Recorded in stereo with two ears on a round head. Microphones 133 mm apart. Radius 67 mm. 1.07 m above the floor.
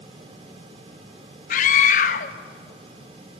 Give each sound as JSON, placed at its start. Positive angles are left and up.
{"t": 1.5, "sound": "a scream", "side_deg": 55, "distance_m": 1.0}